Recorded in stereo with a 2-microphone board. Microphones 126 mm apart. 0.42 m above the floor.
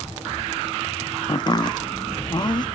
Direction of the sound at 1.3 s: 35° left (ahead or behind).